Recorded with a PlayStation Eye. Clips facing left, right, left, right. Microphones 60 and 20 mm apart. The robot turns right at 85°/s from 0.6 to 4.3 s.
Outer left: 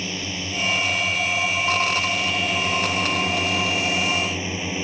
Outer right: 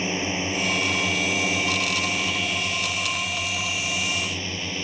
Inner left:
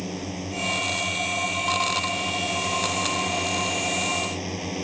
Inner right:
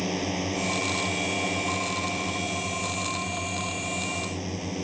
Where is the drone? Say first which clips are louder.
Outer right 4 dB, inner right 4 dB; 155° right; by 4.8 s 160° left.